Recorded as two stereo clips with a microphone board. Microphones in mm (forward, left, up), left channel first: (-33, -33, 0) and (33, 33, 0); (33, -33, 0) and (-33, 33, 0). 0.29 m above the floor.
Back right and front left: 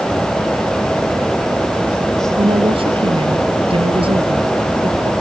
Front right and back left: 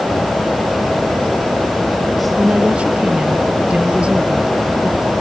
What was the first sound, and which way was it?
A woman speaking, 55° left.